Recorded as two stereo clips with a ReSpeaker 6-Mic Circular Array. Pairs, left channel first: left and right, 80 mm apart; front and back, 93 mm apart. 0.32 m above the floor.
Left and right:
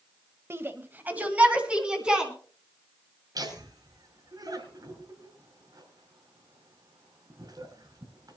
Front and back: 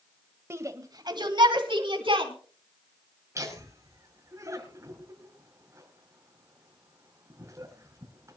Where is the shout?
130° right, 1.4 m; by 2.3 s 170° right, 3 m.